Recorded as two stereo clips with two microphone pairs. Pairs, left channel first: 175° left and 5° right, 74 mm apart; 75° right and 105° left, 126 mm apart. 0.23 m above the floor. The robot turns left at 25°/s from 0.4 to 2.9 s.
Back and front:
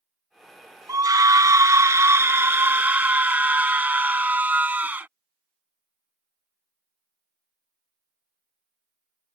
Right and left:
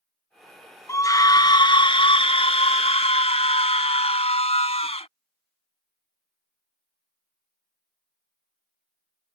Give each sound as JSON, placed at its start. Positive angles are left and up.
{"t": 0.9, "sound": "a scream", "azimuth_deg": -15}